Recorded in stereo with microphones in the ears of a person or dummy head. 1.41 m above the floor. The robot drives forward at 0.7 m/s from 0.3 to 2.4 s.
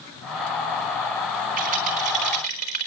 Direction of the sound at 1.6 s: 40° right (ahead or behind).